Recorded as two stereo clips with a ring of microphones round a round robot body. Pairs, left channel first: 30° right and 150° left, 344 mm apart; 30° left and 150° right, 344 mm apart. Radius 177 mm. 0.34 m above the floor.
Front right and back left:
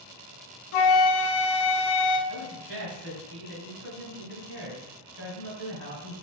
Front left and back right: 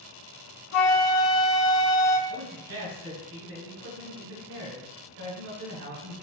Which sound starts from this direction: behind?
A man speaking, at 2.3 s.